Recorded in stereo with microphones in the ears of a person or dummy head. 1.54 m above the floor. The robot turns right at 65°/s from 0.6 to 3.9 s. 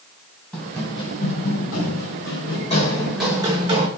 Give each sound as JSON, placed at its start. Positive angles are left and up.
{"t": 0.5, "sound": "running footsteps", "side_deg": 0, "distance_m": 7.5}